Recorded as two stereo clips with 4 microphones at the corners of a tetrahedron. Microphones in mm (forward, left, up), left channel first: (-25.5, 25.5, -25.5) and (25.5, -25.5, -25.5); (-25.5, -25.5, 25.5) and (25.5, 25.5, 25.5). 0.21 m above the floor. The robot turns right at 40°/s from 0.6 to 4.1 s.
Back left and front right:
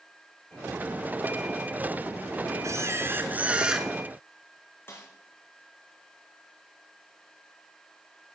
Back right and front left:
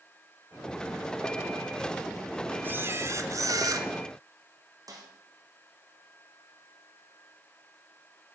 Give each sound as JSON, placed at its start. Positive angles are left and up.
{"t": 2.6, "sound": "a camera shutter", "azimuth_deg": -10, "distance_m": 1.1}
{"t": 4.9, "sound": "a snare drum", "azimuth_deg": 75, "distance_m": 2.5}